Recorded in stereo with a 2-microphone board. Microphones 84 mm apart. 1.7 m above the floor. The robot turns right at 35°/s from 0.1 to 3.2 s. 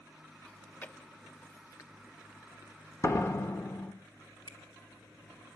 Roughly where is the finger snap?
Left.